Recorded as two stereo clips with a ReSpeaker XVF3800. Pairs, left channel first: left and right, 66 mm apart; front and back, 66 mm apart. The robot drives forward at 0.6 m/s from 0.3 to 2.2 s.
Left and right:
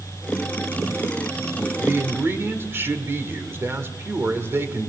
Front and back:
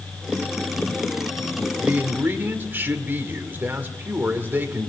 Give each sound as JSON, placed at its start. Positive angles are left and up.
{"t": 1.8, "sound": "a man speaking", "azimuth_deg": -125, "distance_m": 1.9}